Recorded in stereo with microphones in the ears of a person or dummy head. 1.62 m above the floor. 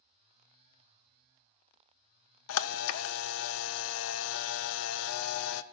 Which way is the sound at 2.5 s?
85° left.